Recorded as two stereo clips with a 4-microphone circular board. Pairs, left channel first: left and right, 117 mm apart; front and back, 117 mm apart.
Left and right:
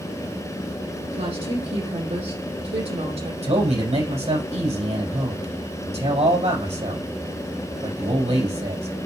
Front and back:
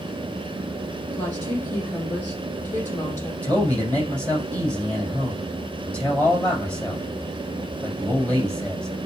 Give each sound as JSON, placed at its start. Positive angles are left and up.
{"t": 1.1, "sound": "a woman speaking", "azimuth_deg": -75, "distance_m": 5.0}
{"t": 3.4, "sound": "a man speaking", "azimuth_deg": -80, "distance_m": 5.5}